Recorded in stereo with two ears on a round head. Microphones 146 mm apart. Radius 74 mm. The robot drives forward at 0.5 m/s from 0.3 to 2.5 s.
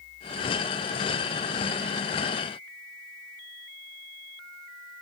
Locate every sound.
Only background noise.